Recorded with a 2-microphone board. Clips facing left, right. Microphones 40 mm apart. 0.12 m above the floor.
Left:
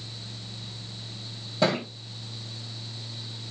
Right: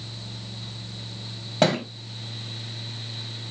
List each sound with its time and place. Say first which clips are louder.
1.6 s a thud: right 3 dB; 65° right (ahead or behind), 1.8 m